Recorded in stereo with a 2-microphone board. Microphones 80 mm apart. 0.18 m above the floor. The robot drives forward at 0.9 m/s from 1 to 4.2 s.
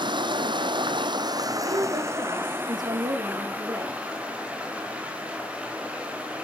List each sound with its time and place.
0.0 s running water: 70° right (ahead or behind), 1.0 m; by 6.5 s 15° right (ahead or behind), 3.5 m
1.6 s a woman speaking: 70° right (ahead or behind), 6.5 m; by 4.0 s 55° right (ahead or behind), 7 m